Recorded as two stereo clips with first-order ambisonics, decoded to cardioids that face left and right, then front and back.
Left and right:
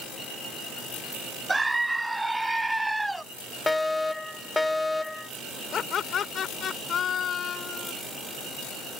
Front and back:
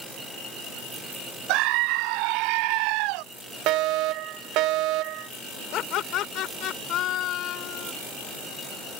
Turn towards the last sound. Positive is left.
turn(degrees=35)